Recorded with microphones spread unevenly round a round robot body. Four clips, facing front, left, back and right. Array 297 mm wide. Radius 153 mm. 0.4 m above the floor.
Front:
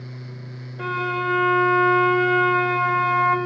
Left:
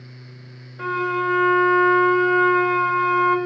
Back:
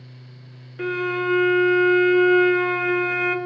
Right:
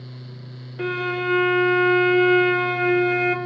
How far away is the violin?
About 1.7 m.